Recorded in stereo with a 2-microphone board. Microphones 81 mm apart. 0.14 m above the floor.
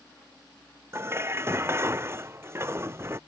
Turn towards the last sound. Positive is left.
turn(degrees=-30)  # may be behind; listen again after turning